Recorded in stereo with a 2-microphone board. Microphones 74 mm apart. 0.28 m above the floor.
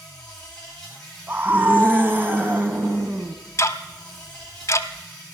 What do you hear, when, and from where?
0.0 s an insect: 10° left (ahead or behind), 6.5 m
1.3 s a scream: 30° right (ahead or behind), 2 m
3.6 s ticking: 45° left (ahead or behind), 0.8 m